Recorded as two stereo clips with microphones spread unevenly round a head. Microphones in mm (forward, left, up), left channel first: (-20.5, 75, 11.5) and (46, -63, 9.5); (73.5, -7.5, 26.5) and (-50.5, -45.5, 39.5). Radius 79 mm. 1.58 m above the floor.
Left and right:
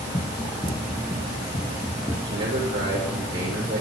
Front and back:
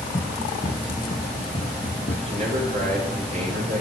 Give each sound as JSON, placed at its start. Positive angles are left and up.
{"t": 0.1, "sound": "running footsteps", "azimuth_deg": 80, "distance_m": 2.5}
{"t": 2.3, "sound": "a man speaking", "azimuth_deg": -130, "distance_m": 6.5}